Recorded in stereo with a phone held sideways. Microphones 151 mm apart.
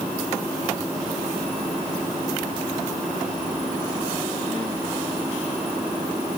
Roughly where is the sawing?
I don't hear sawing.